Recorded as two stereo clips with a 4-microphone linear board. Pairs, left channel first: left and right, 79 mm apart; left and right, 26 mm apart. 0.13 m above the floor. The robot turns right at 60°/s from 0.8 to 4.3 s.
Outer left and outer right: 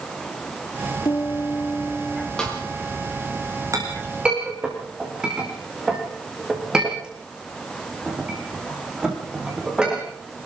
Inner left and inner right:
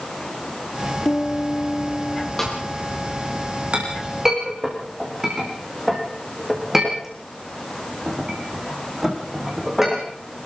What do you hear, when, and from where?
1.1 s a piano: 115° left, 1.3 m; by 2.3 s 170° right, 1.3 m
2.4 s a snare drum: 10° left (ahead or behind), 7.5 m; by 2.6 s 5° right (ahead or behind), 7.5 m
3.7 s a clink: 45° right (ahead or behind), 6.5 m; by 10.0 s 10° right (ahead or behind), 6.5 m